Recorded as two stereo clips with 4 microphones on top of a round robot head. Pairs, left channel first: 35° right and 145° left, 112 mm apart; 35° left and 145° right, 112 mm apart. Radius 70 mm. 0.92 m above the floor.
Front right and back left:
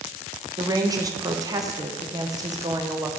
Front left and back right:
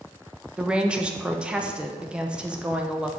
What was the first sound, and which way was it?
A woman speaking, 145° left.